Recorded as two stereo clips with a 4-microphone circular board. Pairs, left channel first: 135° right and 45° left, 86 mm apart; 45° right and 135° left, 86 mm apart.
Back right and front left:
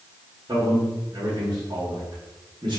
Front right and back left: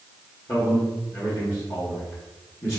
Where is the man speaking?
10° left, 1.6 m.